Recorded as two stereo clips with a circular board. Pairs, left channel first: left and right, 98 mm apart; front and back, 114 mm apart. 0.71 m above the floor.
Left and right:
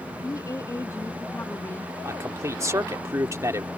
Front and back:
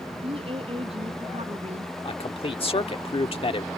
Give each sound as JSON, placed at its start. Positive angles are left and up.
{"t": 0.2, "sound": "a woman speaking", "azimuth_deg": 145}
{"t": 2.0, "sound": "a man speaking", "azimuth_deg": -30}